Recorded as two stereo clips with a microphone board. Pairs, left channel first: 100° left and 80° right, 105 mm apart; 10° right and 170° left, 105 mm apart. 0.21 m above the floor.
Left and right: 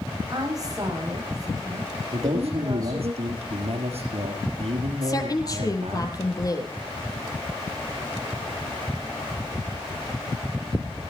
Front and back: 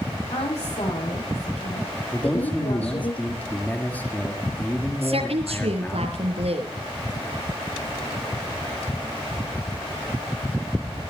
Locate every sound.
0.3 s a woman speaking: 25° right, 8.5 m
2.1 s a man speaking: 85° right, 4.5 m
5.0 s a woman speaking: 155° left, 4.5 m